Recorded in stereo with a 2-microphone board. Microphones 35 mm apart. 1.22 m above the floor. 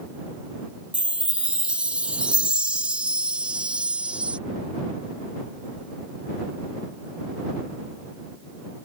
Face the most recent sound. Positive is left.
turn(degrees=-35)  # may be behind; listen again after turning